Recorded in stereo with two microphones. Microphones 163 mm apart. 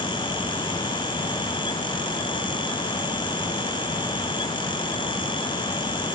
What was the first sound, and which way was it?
Only background noise.